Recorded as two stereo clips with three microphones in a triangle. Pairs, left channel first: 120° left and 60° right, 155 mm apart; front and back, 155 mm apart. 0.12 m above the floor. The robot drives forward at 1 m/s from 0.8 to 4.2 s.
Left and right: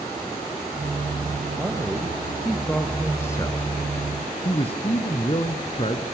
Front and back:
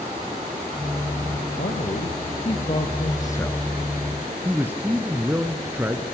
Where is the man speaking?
20° left, 2.5 m; by 6.0 s 110° left, 1.5 m.